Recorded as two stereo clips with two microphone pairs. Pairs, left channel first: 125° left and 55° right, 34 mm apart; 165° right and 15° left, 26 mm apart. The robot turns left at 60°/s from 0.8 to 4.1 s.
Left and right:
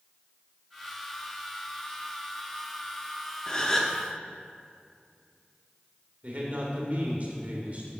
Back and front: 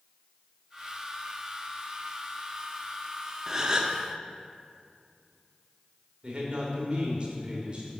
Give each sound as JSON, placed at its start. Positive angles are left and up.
{"t": 3.5, "sound": "a gasp", "azimuth_deg": 75, "distance_m": 0.8}
{"t": 6.2, "sound": "a man speaking", "azimuth_deg": -25, "distance_m": 2.0}